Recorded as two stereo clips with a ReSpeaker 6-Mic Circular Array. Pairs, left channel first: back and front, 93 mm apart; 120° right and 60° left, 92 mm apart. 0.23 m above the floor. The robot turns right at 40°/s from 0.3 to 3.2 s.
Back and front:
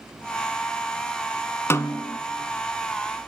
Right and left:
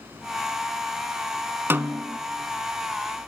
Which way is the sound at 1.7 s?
120° left.